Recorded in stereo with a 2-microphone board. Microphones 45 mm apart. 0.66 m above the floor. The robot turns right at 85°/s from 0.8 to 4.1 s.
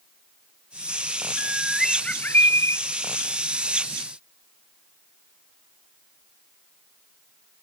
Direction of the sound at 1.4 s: 35° right.